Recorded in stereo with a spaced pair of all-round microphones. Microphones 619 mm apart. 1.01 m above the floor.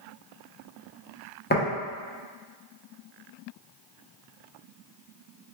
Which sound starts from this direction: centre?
Tapping, at 1.5 s.